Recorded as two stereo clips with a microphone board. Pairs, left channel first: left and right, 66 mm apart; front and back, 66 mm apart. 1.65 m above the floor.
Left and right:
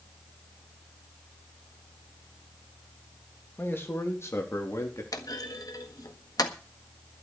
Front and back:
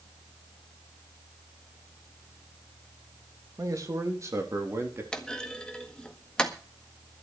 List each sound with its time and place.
3.6 s a man speaking: 150° left, 3 m; by 5.0 s 130° left, 4 m
5.1 s a clunk: 75° left, 1.6 m